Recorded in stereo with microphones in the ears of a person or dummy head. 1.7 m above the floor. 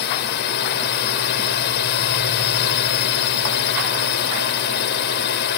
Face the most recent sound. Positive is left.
turn(degrees=55)  # may be behind; listen again after turning